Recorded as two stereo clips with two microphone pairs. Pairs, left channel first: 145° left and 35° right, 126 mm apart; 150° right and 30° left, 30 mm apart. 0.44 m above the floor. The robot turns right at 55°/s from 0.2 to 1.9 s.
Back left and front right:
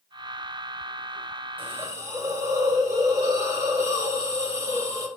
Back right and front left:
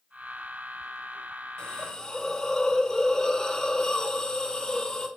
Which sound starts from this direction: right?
A hiss, at 1.6 s.